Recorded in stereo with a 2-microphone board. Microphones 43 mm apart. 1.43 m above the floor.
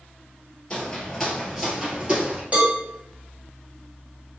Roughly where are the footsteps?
Left.